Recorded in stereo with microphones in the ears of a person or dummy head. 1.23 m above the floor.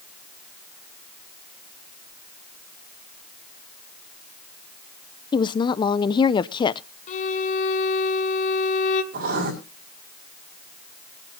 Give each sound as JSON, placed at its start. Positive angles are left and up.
{"t": 5.3, "sound": "a woman speaking", "side_deg": 25, "distance_m": 0.5}
{"t": 7.1, "sound": "a violin", "side_deg": 45, "distance_m": 1.7}
{"t": 9.1, "sound": "writing", "side_deg": -50, "distance_m": 5.0}